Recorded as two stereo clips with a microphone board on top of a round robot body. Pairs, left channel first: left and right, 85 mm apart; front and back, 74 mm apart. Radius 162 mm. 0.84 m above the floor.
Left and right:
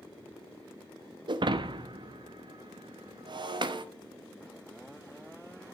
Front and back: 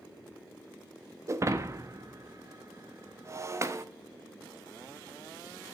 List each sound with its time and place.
1.3 s breaking glass: 125° right, 0.8 m